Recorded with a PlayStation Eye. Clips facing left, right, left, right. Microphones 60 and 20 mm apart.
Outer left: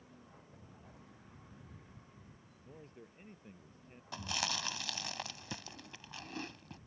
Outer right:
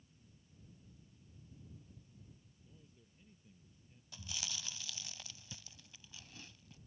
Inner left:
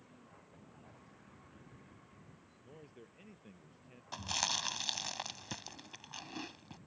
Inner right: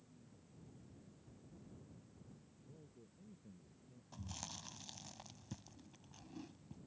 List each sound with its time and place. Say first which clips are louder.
0.0 s a vehicle: outer left 10 dB, inner left 6 dB; 90° left; by 6.9 s 80° left
2.6 s a man speaking: outer left 13 dB, inner left 8 dB; 60° left (ahead or behind)
4.1 s chewing: outer left 10 dB, inner left 15 dB; 70° left (ahead or behind)